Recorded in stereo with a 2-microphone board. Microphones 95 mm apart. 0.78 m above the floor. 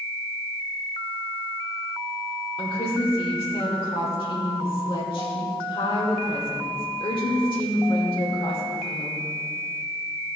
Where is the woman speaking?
65° left (ahead or behind), 2.5 m.